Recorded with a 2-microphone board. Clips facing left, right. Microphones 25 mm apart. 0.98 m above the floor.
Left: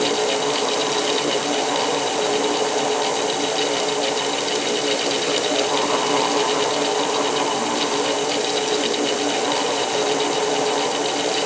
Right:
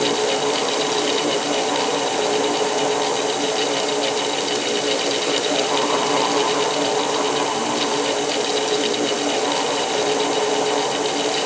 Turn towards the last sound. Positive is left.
No sound to turn to.